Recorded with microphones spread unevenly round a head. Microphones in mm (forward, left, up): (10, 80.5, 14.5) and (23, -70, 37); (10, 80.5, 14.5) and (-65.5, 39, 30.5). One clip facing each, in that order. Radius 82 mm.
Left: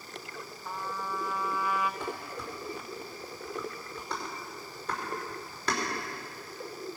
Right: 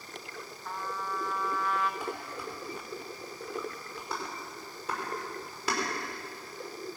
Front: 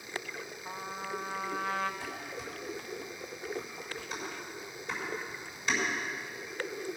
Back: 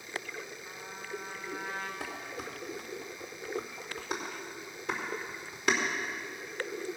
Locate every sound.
0.7 s a trumpet: 5° left, 0.8 m
2.0 s dishes clattering: 165° right, 3 m